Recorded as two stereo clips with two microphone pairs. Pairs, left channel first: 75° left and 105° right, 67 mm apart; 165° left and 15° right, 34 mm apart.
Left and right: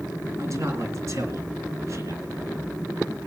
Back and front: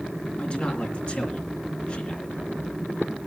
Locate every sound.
0.4 s a man speaking: 145° right, 3.5 m